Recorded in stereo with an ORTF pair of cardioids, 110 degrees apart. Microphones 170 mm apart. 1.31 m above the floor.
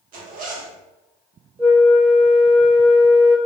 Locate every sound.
0.1 s a zipper: 55° right, 0.8 m
1.6 s a flute: 10° right, 0.7 m